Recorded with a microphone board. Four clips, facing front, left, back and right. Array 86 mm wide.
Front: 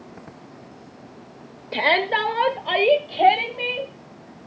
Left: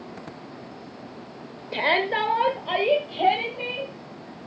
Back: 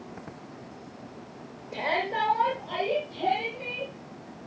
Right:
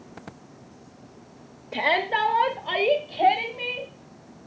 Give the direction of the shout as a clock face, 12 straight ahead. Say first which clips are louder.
Even, front 7 dB; 11 o'clock.